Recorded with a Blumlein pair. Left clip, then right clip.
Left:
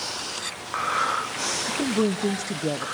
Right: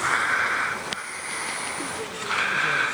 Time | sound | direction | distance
1.7 | a woman speaking | 50° left | 0.9 m